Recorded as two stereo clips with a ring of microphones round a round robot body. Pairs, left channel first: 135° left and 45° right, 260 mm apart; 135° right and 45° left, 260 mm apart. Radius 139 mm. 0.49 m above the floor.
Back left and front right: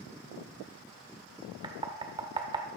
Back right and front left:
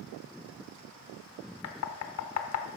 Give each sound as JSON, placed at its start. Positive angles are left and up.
{"t": 1.6, "sound": "knocking", "azimuth_deg": -120, "distance_m": 1.0}